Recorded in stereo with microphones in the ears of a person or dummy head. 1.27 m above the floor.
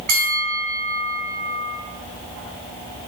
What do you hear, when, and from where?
0.1 s a bell: 45° right (ahead or behind), 1.4 m